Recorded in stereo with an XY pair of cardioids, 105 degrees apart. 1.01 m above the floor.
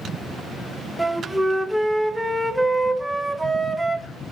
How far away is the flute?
About 0.5 m.